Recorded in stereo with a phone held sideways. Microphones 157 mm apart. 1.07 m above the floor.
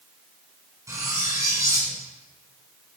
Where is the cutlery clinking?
20° right (ahead or behind), 5.5 m.